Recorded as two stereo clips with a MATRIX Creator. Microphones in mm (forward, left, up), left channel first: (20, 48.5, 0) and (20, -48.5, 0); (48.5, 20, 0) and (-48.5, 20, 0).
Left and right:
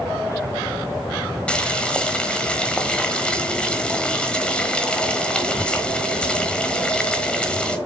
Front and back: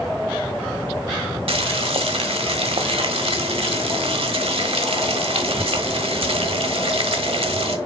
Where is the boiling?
170° left, 1.2 m.